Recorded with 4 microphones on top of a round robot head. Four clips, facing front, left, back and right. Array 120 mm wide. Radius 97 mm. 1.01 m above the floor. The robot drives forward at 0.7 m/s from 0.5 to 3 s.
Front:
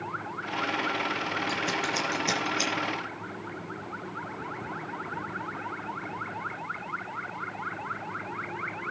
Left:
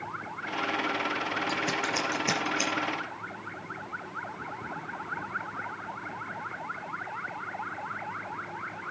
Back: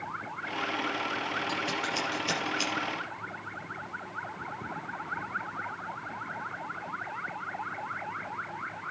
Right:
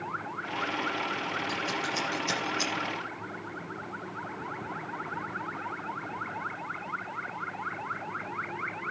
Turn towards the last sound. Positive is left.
turn(degrees=65)